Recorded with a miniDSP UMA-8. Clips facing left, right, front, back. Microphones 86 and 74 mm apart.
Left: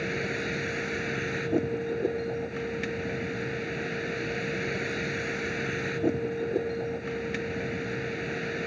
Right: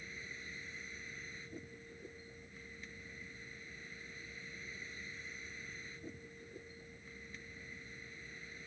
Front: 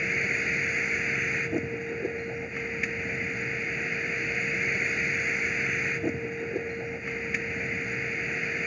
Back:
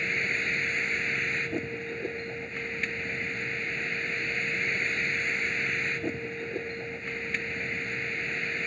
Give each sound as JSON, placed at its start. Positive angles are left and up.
{"t": 0.0, "sound": "a vehicle", "azimuth_deg": 80}